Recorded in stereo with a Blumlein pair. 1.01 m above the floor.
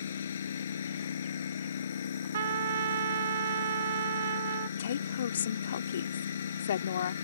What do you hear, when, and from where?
0.0 s a lawn mower: 65° left
2.3 s a trumpet: 60° right
4.8 s a woman speaking: 65° left